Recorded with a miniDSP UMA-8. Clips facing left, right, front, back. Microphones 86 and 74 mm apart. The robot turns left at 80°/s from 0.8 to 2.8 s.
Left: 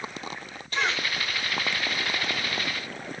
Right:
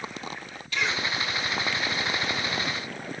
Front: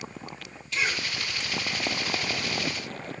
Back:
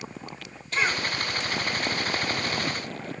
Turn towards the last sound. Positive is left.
turn(degrees=-20)